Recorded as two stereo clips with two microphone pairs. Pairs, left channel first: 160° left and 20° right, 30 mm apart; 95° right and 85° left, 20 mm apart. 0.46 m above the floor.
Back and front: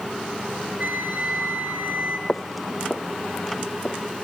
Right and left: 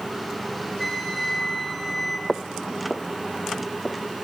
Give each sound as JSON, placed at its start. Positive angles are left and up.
{"t": 0.8, "sound": "a flute", "azimuth_deg": -10, "distance_m": 5.5}
{"t": 2.3, "sound": "footsteps", "azimuth_deg": -170, "distance_m": 0.9}